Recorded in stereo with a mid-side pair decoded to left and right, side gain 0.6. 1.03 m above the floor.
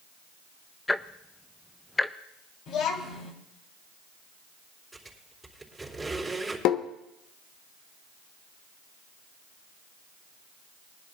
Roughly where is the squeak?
Ahead.